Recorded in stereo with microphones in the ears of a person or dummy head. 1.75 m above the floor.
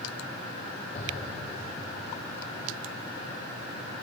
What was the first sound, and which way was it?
An explosion, 35° left (ahead or behind).